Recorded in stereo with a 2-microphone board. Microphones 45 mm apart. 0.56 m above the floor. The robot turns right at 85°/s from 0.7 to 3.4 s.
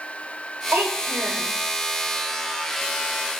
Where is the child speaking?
100° right, 1.7 m; by 1.5 s 35° right, 1.7 m.